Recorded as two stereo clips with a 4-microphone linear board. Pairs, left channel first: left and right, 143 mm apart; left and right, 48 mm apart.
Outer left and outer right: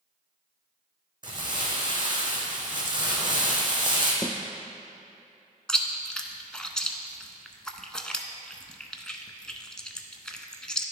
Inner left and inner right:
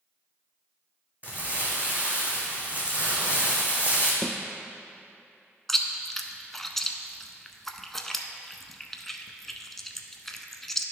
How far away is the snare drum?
About 0.6 m.